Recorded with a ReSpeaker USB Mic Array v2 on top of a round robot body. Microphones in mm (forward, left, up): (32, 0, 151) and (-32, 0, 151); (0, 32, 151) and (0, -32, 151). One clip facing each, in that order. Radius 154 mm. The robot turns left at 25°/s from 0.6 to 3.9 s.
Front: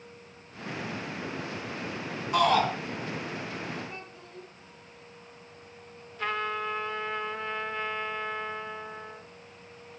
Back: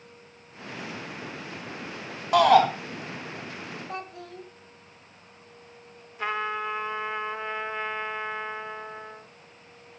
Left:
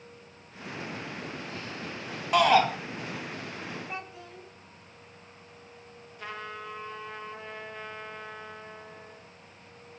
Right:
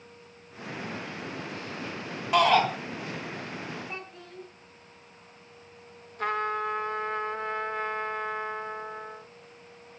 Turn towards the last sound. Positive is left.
turn(degrees=-110)